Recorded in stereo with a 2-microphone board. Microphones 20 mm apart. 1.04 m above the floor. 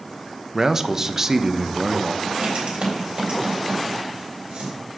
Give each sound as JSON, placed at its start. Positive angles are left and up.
{"t": 0.5, "sound": "a man speaking", "side_deg": -25, "distance_m": 0.5}
{"t": 2.2, "sound": "writing", "side_deg": -80, "distance_m": 3.0}